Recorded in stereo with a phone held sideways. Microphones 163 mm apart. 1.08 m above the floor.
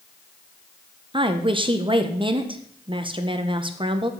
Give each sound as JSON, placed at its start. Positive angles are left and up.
{"t": 1.1, "sound": "a woman speaking", "side_deg": -30, "distance_m": 0.7}